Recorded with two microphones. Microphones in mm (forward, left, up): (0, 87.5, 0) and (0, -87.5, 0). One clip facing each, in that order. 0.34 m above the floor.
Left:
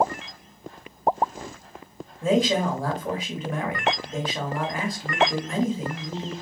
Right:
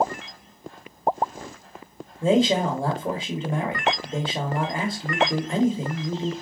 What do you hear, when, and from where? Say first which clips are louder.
2.2 s a man speaking: right 2 dB; 30° right (ahead or behind), 1.1 m